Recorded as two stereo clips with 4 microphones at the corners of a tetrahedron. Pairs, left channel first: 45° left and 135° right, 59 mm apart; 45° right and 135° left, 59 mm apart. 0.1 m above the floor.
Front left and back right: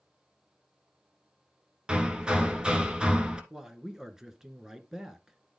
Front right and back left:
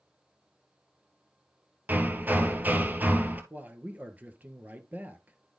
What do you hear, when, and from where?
1.9 s hammering: 160° left, 1.2 m
3.5 s a man speaking: 155° left, 1.2 m